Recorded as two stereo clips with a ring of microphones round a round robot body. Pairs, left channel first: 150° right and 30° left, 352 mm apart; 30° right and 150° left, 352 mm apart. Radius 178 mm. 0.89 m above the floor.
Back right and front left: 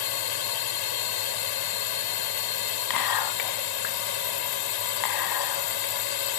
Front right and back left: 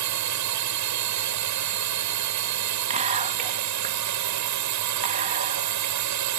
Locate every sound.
0.0 s a drone: 170° right
2.9 s whispering: 140° right